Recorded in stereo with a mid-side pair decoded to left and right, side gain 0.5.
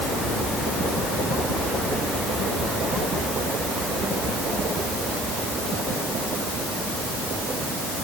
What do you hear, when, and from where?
Only background noise.